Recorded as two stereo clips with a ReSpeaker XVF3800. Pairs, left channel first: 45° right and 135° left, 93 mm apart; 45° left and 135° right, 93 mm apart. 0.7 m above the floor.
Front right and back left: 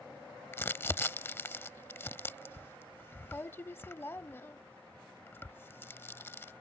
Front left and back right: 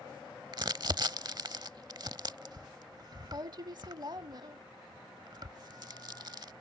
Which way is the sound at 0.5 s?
105° right.